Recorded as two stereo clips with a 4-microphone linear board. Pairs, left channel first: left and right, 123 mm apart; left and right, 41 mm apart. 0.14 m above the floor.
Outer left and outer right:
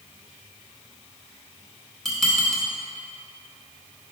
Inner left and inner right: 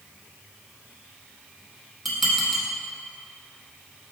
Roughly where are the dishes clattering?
Centre.